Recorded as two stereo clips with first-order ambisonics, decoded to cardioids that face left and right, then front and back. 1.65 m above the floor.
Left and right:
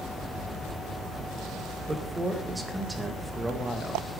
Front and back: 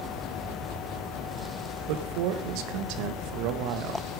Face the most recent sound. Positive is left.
turn(degrees=-175)